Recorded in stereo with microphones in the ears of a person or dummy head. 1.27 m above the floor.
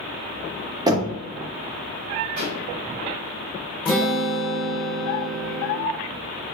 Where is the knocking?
20° right (ahead or behind), 1.1 m.